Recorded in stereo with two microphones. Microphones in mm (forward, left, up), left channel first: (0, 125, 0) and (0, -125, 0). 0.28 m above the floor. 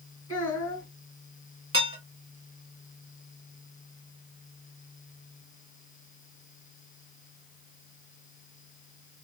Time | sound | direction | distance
0.3 | a child speaking | 65° right (ahead or behind) | 2 m
1.7 | dishes clattering | 55° right (ahead or behind) | 1.5 m